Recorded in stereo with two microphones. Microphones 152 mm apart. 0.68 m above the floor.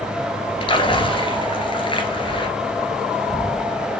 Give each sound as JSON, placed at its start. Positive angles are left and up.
{"t": 0.6, "sound": "a splash", "side_deg": 35, "distance_m": 1.9}